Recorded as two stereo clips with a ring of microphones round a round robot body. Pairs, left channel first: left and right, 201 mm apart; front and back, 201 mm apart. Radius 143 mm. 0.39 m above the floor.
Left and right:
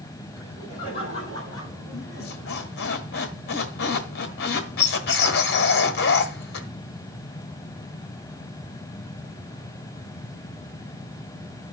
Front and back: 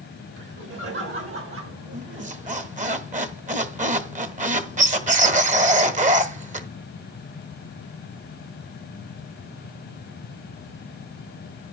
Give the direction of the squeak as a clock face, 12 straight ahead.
8 o'clock.